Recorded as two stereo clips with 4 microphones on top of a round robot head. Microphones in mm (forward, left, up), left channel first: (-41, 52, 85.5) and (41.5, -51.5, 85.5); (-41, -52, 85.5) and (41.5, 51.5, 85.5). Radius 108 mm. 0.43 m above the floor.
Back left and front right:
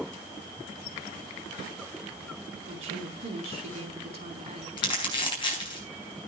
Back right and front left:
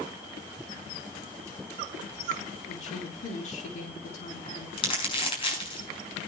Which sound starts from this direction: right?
A woman speaking, at 2.7 s.